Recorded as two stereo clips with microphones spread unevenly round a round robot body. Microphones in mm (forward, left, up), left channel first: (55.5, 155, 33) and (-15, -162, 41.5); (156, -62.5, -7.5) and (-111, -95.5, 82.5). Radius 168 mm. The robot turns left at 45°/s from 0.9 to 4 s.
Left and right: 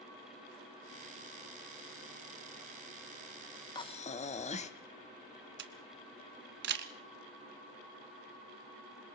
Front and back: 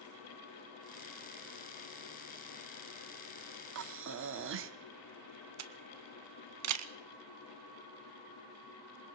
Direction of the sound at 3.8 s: 150° left.